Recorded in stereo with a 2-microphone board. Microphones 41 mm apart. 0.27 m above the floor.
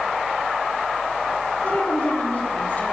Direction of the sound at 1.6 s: 35° left (ahead or behind).